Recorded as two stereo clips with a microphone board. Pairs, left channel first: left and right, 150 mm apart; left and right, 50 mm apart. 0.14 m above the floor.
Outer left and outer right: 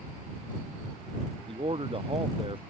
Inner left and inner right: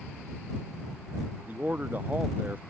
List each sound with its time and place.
1.5 s a man speaking: 35° right (ahead or behind)